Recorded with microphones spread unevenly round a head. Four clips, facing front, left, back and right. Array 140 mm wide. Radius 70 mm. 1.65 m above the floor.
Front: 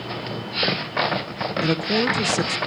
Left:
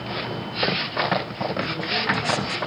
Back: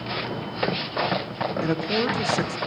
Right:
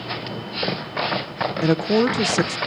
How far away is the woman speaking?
About 1.3 m.